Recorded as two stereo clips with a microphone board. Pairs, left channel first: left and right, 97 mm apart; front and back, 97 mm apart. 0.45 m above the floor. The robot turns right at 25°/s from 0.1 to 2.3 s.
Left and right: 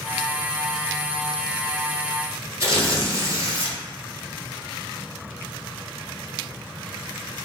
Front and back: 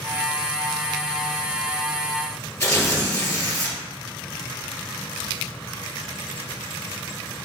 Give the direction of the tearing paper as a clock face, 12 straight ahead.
1 o'clock.